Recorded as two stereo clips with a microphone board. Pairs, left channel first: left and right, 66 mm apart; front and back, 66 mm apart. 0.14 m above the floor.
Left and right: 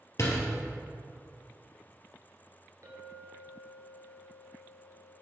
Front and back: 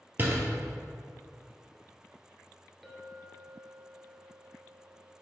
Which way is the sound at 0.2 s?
125° left.